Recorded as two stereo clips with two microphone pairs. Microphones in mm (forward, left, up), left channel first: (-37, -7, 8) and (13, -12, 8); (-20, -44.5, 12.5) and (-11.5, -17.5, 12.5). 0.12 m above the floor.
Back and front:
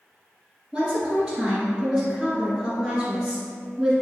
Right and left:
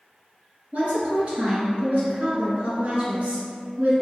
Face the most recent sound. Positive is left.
turn(degrees=85)